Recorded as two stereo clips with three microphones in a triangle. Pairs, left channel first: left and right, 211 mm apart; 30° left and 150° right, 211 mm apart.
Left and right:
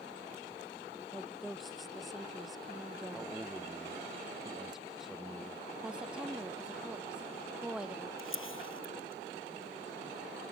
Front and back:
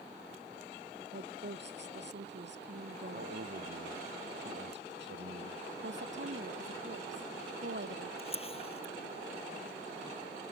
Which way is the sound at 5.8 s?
175° right.